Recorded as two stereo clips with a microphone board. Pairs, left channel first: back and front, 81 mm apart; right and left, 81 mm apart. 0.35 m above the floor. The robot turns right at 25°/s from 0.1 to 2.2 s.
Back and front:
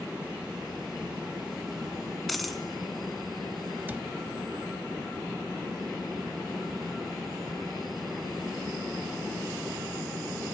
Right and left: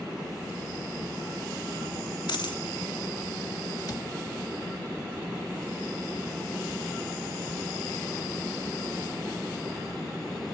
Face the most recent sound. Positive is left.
turn(degrees=-65)